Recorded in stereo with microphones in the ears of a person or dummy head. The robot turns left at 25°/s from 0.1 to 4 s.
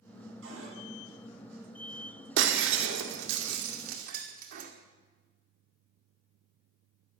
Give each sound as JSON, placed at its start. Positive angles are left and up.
{"t": 0.4, "sound": "a cupboard door", "side_deg": -75, "distance_m": 7.5}
{"t": 2.4, "sound": "breaking glass", "side_deg": -75, "distance_m": 1.8}